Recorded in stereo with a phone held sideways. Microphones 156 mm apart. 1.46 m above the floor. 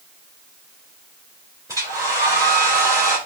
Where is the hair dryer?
20° right (ahead or behind), 2.5 m.